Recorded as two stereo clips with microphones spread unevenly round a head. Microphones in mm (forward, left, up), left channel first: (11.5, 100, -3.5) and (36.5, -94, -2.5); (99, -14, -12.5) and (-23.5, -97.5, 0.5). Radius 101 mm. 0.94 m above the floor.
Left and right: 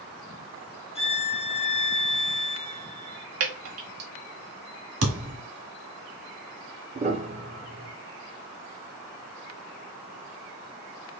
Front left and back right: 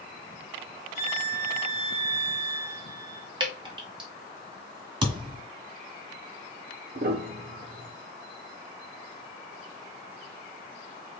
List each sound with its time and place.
0.9 s a violin: 35° left, 1.1 m
3.4 s dripping: 85° right, 1.8 m
5.0 s a thud: 90° right, 1.7 m
7.0 s a piano: 140° right, 0.8 m